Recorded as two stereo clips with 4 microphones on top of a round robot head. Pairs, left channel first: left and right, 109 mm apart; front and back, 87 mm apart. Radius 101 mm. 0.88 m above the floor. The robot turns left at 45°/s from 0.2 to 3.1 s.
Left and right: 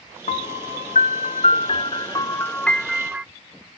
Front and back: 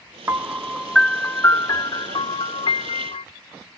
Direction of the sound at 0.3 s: 120° left.